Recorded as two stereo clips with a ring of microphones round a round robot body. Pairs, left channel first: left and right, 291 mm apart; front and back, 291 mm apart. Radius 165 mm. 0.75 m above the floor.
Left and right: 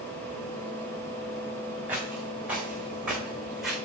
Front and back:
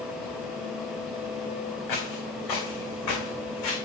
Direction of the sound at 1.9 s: 5° right.